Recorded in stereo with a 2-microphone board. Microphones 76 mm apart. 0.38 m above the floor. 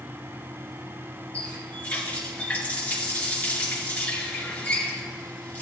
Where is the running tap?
20° left (ahead or behind), 4 m.